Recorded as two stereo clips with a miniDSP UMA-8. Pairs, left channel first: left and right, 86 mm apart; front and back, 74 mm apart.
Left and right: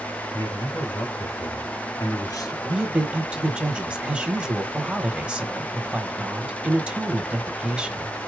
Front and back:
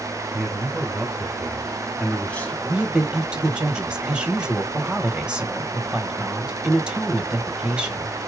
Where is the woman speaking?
135° right, 1.1 m.